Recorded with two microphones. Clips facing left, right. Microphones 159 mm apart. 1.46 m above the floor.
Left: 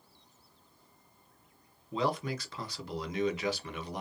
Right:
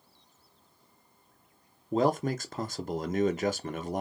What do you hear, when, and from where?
1.9 s a man speaking: 45° right (ahead or behind), 0.6 m